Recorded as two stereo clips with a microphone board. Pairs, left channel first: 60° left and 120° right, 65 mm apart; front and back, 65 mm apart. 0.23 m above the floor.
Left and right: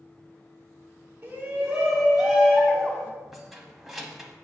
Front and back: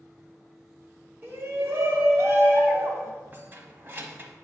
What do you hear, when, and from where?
1.2 s a shout: 160° right, 1.5 m; by 3.1 s 130° left, 2 m
3.3 s keys jangling: 155° left, 1.0 m